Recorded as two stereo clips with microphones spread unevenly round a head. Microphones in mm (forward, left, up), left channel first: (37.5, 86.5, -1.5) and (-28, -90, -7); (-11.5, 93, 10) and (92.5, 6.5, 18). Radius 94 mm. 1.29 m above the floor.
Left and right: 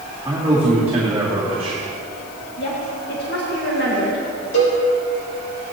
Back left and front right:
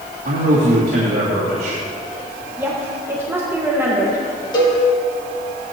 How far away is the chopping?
No chopping in this recording.